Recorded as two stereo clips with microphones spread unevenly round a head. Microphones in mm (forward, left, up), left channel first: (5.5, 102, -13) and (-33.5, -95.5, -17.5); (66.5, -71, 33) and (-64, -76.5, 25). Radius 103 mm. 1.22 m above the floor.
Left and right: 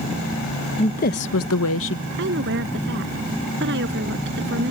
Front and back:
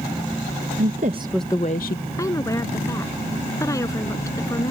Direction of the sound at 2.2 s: 65° right.